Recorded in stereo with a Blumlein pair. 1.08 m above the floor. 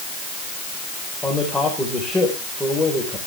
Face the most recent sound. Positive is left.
turn(degrees=5)